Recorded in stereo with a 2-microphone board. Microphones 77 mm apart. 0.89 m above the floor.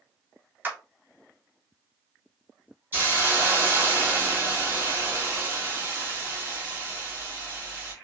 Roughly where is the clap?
Right.